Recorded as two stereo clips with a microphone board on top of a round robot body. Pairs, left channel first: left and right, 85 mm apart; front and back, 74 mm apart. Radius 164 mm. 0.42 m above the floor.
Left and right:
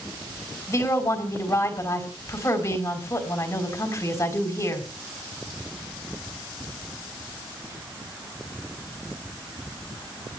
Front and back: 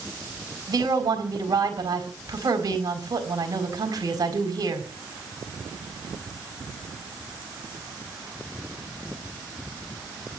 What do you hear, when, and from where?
0.7 s a woman speaking: 145° left, 4.5 m